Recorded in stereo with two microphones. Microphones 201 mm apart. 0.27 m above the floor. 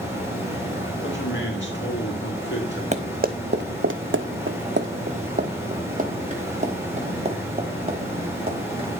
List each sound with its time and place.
0.0 s running water: 10° right (ahead or behind), 5 m
1.0 s a man speaking: 65° left (ahead or behind), 3 m
2.9 s running footsteps: 35° right (ahead or behind), 0.9 m; by 8.9 s 25° right (ahead or behind), 3.5 m